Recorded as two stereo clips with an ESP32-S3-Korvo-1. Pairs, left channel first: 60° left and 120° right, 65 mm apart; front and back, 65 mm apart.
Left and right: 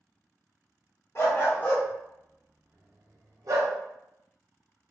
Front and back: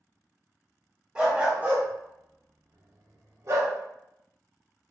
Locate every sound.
1.1 s a dog barking: 110° left, 1.0 m; by 3.7 s 135° right, 0.9 m